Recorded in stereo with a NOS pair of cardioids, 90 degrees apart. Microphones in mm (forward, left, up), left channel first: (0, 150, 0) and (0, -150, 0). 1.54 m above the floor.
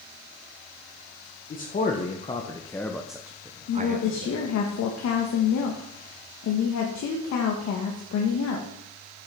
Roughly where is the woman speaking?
Ahead left.